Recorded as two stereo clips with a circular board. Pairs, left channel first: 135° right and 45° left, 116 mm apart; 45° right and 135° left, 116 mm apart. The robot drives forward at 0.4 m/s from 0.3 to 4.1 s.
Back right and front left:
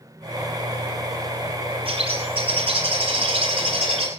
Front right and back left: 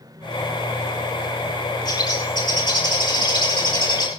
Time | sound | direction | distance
1.9 | a bird | 10° left | 7.5 m